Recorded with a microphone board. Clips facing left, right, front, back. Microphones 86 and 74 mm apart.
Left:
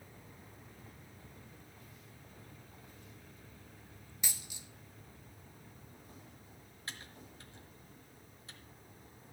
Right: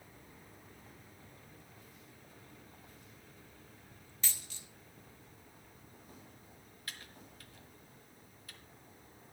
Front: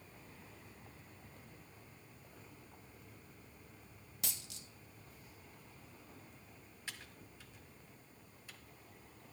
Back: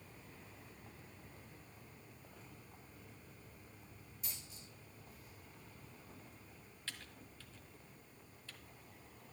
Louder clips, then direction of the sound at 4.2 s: Even, front 6 dB; 15° left.